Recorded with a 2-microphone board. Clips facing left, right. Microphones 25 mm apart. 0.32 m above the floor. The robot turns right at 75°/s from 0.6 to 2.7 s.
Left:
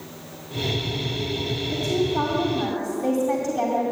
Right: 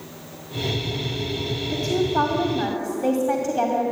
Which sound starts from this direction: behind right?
A woman speaking, at 1.7 s.